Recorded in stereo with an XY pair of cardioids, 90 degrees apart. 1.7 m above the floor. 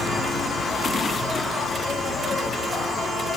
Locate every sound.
0.0 s an insect: 55° left, 1.0 m